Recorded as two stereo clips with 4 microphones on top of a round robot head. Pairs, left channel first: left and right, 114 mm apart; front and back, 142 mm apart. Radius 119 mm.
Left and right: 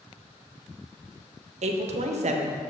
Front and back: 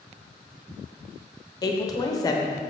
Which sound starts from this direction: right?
A woman speaking, at 1.6 s.